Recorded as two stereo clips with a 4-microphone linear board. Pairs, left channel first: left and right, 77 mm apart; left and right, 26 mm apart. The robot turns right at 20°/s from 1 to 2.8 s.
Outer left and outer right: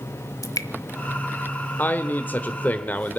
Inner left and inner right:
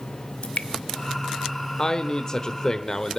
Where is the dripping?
50° left (ahead or behind), 0.8 m.